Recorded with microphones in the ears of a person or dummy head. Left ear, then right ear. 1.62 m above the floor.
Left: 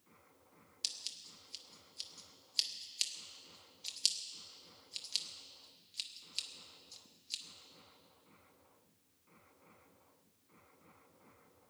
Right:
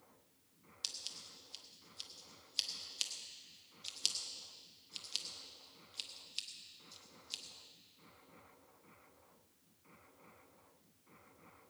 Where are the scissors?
5° right (ahead or behind), 0.8 m.